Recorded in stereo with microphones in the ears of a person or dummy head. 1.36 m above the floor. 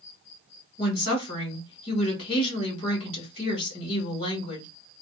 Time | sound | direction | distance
0.8 | a woman speaking | 30° left (ahead or behind) | 1.9 m